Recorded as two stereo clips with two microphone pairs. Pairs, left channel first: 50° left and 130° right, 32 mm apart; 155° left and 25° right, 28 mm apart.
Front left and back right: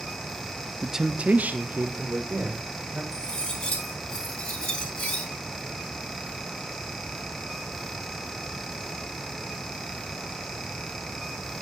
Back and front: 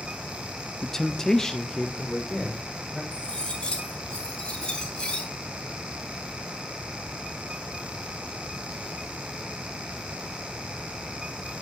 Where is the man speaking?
120° left, 0.6 m; by 3.0 s 125° right, 3 m.